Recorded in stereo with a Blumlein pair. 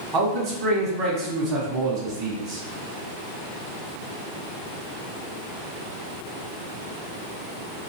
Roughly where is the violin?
I don't hear a violin.